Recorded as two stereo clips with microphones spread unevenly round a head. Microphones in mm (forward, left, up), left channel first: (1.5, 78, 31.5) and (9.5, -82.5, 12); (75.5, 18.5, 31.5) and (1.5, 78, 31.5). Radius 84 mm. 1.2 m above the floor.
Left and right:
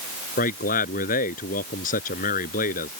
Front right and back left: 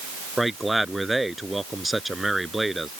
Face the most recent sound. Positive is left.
turn(degrees=50)